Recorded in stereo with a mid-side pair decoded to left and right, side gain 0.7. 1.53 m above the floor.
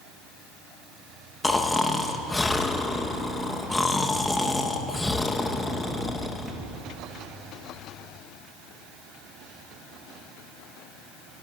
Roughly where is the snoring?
Ahead.